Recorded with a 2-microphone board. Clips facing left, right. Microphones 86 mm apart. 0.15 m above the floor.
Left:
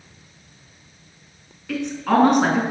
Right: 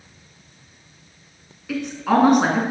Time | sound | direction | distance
1.7 | a woman speaking | 5° right (ahead or behind) | 1.7 m